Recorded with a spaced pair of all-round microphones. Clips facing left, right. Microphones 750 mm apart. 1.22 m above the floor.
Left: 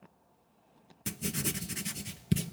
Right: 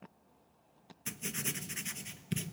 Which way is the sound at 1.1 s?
65° left (ahead or behind).